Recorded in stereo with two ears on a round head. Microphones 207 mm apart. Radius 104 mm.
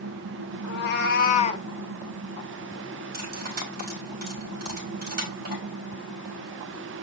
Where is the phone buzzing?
I don't hear a phone buzzing.